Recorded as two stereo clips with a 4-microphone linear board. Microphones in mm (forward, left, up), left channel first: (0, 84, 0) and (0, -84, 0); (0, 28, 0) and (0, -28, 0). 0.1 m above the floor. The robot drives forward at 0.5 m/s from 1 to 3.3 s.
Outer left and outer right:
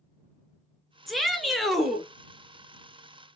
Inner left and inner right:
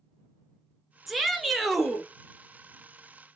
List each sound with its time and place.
1.1 s a shout: centre (ahead or behind), 1.1 m